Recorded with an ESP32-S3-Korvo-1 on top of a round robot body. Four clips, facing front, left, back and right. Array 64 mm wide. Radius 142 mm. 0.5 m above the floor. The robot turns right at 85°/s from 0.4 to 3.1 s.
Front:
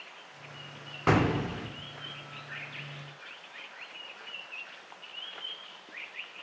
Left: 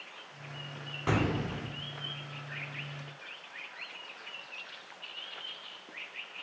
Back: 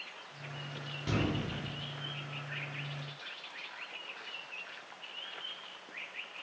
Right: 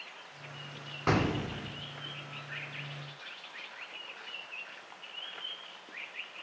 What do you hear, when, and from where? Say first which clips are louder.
1.1 s an explosion: right 1 dB, front 8 dB; 15° right, 1.3 m; by 1.7 s 40° left, 1.3 m